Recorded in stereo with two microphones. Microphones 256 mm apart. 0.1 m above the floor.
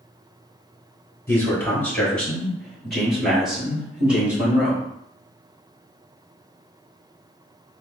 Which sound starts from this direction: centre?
A man speaking, at 1.3 s.